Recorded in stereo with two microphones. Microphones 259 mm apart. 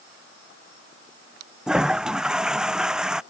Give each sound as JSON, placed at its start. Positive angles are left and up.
{"t": 1.7, "sound": "a toilet flushing", "side_deg": -5}